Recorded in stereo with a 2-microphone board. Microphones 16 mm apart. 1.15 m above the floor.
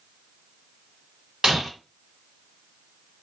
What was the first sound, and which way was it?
Breaking glass, 50° right (ahead or behind).